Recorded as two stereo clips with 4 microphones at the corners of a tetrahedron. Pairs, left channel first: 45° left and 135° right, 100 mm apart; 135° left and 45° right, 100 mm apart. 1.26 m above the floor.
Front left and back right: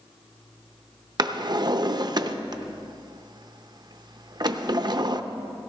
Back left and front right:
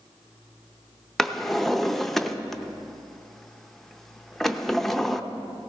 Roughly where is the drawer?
Behind right.